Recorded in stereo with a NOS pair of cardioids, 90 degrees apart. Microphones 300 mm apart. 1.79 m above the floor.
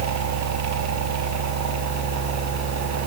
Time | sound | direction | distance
0.0 | a machine running | 65° right | 6.5 m